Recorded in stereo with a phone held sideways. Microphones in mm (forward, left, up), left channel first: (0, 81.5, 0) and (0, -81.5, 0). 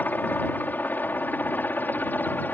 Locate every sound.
0.0 s a helicopter: 10° left (ahead or behind)